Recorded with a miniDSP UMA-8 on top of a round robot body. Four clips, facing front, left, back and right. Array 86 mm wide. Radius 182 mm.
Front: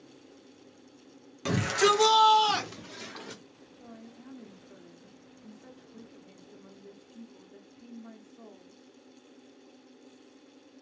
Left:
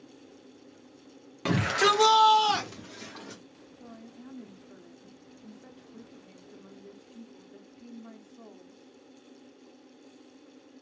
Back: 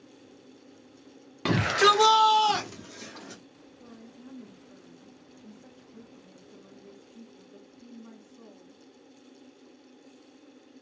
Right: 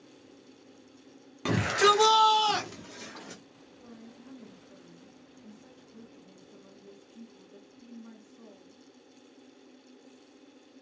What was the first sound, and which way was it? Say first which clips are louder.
A shout: right 1 dB, back 3 dB; 170° left.